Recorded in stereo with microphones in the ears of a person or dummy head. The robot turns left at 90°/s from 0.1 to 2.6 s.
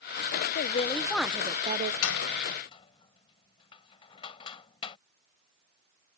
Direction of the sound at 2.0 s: 80° left.